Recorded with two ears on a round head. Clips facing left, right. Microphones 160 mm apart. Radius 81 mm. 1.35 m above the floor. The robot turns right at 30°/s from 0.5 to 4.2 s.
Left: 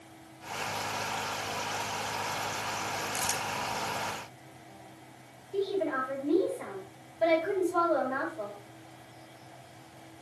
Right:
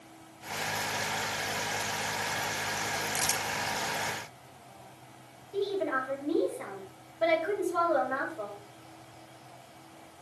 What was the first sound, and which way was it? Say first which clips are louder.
Crumpling: even; 5° right (ahead or behind).